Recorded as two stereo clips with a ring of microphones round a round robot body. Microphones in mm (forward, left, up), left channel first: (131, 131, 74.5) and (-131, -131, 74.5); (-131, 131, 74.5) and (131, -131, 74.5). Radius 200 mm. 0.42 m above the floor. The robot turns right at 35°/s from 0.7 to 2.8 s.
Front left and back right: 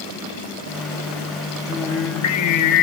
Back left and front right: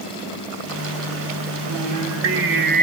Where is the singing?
20° right, 1.1 m; by 2.8 s 20° left, 1.1 m.